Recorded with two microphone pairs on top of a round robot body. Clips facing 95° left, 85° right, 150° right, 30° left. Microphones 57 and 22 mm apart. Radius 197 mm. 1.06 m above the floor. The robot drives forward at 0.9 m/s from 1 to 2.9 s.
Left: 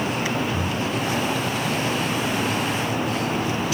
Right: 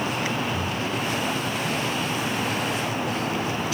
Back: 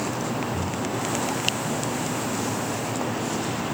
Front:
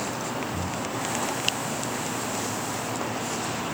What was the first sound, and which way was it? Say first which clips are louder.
Breathing: left 2 dB, back 2 dB; 10° left.